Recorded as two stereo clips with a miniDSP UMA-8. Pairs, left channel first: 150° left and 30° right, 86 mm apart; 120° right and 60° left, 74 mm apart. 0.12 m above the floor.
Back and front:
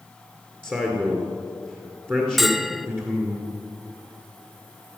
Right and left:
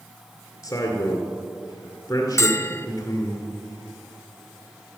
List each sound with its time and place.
0.6 s a man speaking: 90° right, 2 m
2.4 s a bell: 120° right, 0.5 m